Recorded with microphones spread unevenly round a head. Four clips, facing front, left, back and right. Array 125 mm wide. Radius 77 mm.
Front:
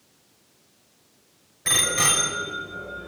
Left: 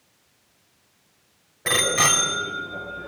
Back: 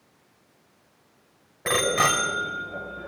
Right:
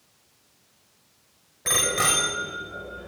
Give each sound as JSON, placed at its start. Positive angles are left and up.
{"t": 1.6, "sound": "a bicycle bell", "azimuth_deg": 160, "distance_m": 3.0}